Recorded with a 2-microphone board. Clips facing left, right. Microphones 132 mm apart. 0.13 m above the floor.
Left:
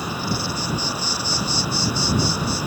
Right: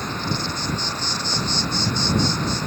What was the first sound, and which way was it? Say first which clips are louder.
An insect: left 1 dB; 10° left (ahead or behind).